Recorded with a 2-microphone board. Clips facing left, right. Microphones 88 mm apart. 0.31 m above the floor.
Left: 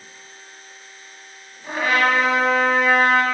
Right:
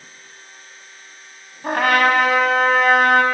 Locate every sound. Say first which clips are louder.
1.6 s a trumpet: right 3 dB; 65° right (ahead or behind), 1.8 m